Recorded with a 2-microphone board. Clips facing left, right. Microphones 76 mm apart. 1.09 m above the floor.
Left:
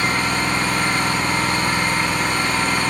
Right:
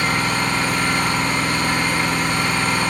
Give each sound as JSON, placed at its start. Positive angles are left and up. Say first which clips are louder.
{"t": 0.0, "sound": "an engine running", "louder": "even", "side_deg": 35, "distance_m": 1.4}